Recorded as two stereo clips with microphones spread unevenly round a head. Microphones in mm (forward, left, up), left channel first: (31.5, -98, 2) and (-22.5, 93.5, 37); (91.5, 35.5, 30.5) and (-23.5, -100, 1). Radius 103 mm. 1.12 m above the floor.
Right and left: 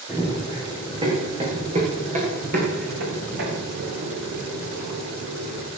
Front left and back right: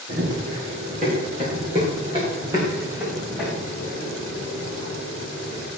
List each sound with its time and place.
0.1 s running footsteps: straight behind, 7.5 m; by 5.7 s 110° left, 6.5 m